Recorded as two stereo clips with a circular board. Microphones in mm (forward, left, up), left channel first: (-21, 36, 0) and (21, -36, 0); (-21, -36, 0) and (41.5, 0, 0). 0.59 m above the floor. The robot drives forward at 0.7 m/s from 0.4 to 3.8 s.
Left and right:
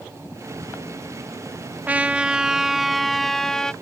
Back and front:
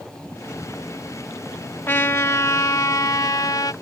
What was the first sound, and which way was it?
A trumpet, 115° right.